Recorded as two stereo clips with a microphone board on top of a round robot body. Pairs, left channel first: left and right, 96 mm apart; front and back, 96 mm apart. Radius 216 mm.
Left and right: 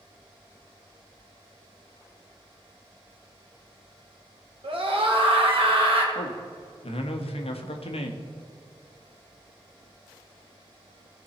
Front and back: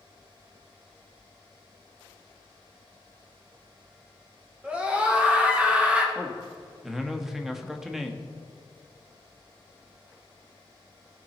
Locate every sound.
4.6 s a scream: 105° right, 2.5 m
6.2 s a man speaking: 95° left, 1.3 m